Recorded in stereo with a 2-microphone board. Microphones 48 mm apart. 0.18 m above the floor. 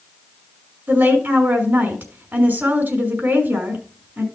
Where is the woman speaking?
45° right (ahead or behind), 2 m.